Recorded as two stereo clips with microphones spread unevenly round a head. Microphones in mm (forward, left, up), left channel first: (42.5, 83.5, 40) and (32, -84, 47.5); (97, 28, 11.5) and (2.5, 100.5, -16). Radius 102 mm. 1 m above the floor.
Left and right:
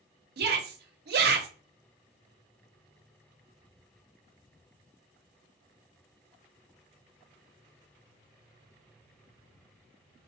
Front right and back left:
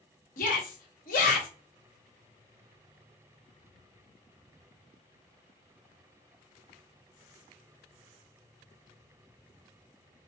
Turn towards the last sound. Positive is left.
turn(degrees=-70)